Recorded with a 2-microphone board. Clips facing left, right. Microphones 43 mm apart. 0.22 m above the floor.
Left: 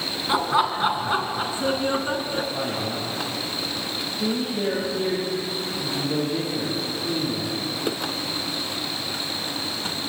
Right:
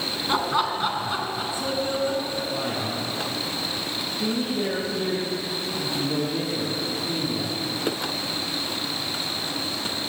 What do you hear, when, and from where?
0.3 s laughter: 5° left (ahead or behind), 2.5 m; by 2.4 s 40° left (ahead or behind), 3.5 m
2.5 s a man speaking: 5° left (ahead or behind), 9 m